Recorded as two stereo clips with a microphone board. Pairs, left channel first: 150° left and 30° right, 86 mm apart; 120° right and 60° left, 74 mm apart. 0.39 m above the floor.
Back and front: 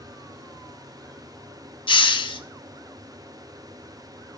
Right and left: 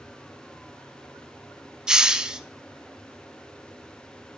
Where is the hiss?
140° left, 0.5 m.